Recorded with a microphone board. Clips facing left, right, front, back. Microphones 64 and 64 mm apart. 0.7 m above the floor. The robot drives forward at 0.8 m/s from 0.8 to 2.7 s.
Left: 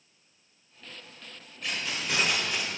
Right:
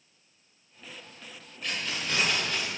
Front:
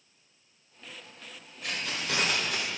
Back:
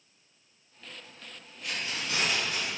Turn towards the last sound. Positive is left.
turn(degrees=15)